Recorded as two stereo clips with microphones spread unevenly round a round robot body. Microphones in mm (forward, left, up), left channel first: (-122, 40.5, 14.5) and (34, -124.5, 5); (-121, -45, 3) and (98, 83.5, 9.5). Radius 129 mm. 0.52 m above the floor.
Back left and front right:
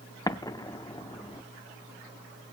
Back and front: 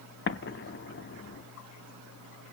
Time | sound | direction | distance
0.3 | an explosion | 155° right | 0.6 m